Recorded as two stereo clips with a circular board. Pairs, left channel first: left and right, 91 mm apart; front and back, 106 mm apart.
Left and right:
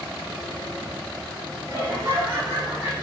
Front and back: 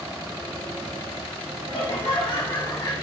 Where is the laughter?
40° right, 3 m; by 2.9 s 45° right, 3.5 m.